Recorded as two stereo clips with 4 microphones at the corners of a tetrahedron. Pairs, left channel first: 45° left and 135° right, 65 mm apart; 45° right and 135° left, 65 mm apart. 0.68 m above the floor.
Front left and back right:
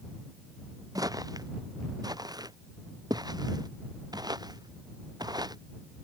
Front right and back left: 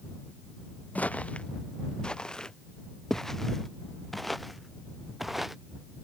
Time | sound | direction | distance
0.9 | footsteps | 115° right | ?